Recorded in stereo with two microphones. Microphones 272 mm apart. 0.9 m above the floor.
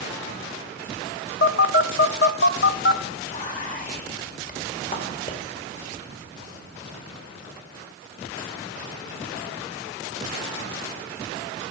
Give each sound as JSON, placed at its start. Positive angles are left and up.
{"t": 1.4, "sound": "a phone buzzing", "side_deg": 50, "distance_m": 0.6}
{"t": 3.3, "sound": "whispering", "side_deg": 30, "distance_m": 2.0}